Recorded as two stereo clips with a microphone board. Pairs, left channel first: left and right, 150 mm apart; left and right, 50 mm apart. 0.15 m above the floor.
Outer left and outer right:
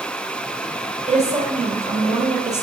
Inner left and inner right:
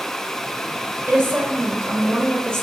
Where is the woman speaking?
50° right (ahead or behind), 2 m.